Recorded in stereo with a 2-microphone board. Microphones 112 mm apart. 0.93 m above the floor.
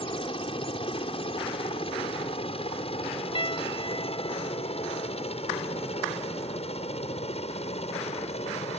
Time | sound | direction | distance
0.0 | a helicopter | 50° left (ahead or behind) | ?
3.4 | a piano | 50° left (ahead or behind) | ?